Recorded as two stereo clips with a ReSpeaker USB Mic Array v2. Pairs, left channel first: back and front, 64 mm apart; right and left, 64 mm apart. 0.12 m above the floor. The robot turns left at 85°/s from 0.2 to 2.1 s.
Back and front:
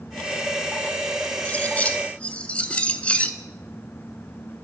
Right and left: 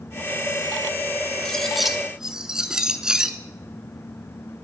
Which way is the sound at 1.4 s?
155° right.